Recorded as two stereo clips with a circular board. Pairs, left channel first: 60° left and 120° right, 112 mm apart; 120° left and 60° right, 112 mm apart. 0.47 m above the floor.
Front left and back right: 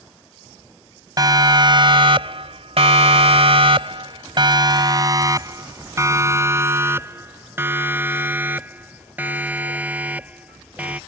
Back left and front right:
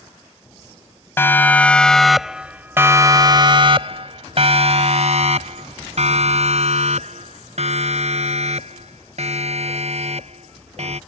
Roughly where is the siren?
Behind.